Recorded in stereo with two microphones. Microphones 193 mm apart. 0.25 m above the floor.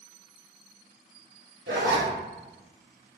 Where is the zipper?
80° right, 0.8 m.